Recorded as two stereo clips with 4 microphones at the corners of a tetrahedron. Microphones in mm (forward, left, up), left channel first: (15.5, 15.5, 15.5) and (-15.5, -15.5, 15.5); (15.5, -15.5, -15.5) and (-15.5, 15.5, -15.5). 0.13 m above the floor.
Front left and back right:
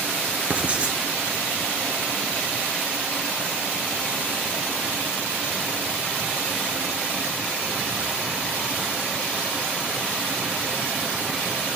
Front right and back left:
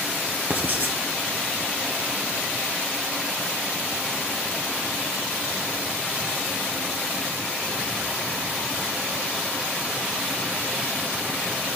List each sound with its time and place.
0.5 s writing: 170° left, 1.4 m